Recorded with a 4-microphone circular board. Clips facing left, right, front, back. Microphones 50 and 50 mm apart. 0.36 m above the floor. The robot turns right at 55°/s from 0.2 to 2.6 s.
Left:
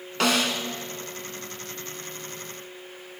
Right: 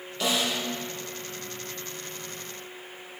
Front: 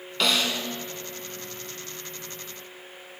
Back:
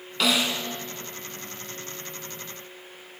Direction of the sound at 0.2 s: 95° left.